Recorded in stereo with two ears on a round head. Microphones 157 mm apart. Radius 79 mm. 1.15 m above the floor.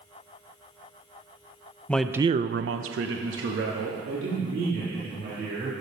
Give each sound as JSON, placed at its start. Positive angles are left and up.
{"t": 1.9, "sound": "a man speaking", "side_deg": 10, "distance_m": 0.7}